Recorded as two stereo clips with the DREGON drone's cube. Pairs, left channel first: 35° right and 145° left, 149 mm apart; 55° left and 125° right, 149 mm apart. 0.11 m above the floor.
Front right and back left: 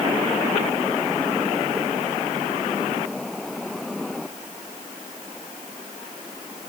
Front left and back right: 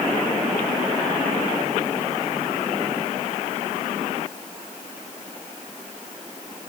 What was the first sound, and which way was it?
Only background noise.